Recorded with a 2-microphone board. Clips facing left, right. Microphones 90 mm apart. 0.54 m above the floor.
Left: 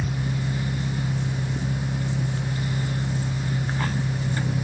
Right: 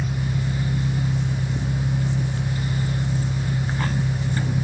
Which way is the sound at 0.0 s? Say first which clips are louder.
Right 1 dB; 30° left (ahead or behind).